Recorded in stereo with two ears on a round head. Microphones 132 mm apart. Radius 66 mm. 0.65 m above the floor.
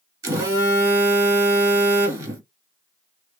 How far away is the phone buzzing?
About 1.5 m.